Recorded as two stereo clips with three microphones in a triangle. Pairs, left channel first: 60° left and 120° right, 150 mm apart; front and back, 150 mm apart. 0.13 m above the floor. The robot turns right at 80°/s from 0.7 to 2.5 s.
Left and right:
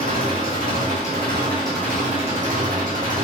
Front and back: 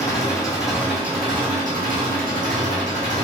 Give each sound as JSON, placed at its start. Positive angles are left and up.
{"t": 0.0, "sound": "an engine running", "azimuth_deg": 70, "distance_m": 1.8}